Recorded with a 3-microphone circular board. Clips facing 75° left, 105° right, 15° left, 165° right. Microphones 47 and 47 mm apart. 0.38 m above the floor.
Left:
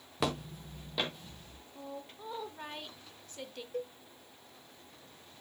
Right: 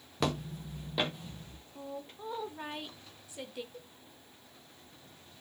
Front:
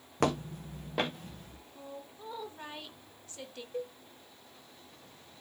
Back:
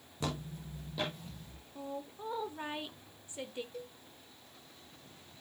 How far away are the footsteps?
About 1.0 m.